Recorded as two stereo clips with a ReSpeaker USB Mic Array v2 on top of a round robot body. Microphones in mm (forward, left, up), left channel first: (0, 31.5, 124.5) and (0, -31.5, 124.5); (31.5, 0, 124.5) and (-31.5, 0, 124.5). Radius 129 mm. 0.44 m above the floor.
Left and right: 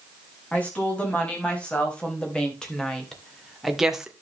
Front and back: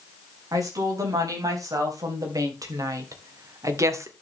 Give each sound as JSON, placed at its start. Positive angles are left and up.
{"t": 0.5, "sound": "a woman speaking", "azimuth_deg": 155, "distance_m": 5.5}